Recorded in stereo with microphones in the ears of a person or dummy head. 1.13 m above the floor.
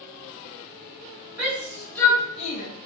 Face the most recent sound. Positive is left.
turn(degrees=50)  # may be behind; listen again after turning